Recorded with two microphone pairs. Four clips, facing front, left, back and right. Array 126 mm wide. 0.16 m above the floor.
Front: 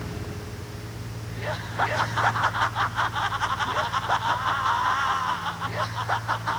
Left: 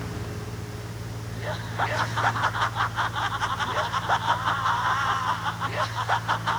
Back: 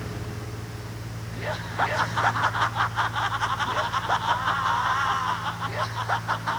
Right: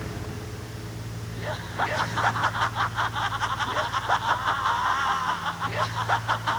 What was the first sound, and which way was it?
Only background noise.